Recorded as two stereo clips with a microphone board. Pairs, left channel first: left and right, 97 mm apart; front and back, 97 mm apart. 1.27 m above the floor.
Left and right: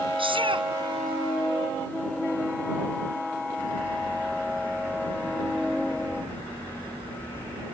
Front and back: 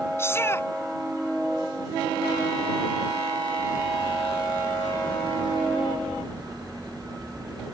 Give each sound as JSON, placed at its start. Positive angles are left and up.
{"t": 0.2, "sound": "a shout", "azimuth_deg": -65}